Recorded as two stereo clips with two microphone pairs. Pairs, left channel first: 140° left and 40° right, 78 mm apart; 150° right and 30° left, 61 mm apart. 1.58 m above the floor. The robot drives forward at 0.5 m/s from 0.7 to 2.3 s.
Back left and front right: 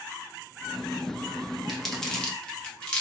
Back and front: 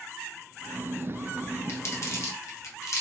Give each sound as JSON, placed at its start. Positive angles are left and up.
{"t": 1.7, "sound": "crumpling", "azimuth_deg": -130, "distance_m": 0.8}